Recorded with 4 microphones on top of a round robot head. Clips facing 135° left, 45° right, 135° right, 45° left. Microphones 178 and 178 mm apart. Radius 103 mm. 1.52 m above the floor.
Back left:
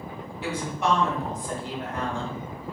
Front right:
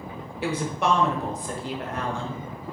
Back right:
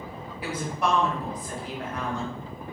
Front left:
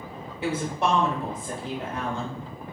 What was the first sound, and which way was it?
A woman speaking, 20° right.